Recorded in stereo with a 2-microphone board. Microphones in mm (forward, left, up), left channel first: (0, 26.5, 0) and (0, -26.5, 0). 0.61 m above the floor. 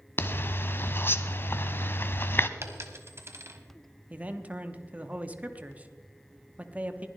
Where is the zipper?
45° left (ahead or behind), 0.7 m.